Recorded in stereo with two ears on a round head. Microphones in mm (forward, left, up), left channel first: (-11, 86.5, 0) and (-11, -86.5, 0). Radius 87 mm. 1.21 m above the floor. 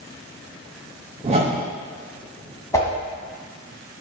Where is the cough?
I don't hear a cough.